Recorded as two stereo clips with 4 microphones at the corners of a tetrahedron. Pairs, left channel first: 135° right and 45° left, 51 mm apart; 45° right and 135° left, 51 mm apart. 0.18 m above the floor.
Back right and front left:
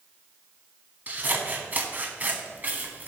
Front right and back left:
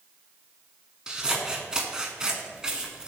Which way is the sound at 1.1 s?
70° left.